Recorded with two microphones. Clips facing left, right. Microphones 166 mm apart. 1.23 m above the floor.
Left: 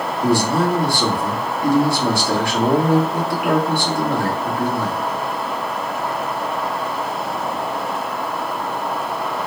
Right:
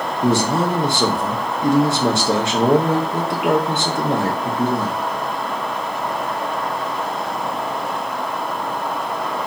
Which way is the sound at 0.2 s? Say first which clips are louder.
Even; 25° right (ahead or behind).